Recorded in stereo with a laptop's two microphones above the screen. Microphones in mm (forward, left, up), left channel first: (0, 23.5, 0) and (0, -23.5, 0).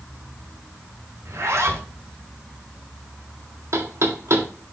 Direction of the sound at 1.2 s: 90° right.